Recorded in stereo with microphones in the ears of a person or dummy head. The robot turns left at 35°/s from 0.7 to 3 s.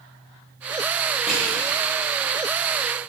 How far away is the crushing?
About 1.1 m.